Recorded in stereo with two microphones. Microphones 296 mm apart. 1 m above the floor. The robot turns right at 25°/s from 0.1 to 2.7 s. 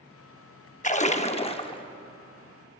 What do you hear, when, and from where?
0.8 s a splash: 25° left (ahead or behind), 0.6 m; by 1.8 s 15° left (ahead or behind), 0.6 m